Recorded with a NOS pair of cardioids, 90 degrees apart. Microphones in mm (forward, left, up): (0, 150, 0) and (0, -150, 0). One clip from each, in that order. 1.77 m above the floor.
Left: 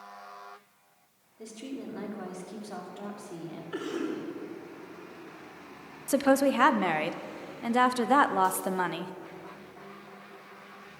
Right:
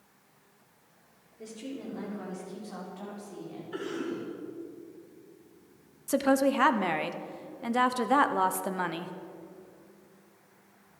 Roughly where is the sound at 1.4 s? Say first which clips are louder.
Even; ahead.